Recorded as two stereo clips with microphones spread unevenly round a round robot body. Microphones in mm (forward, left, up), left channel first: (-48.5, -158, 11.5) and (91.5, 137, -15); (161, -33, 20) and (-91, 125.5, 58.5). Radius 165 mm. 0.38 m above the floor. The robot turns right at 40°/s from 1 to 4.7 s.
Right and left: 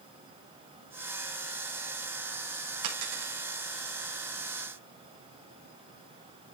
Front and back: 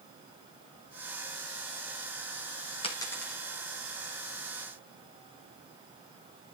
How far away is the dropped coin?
About 5.5 m.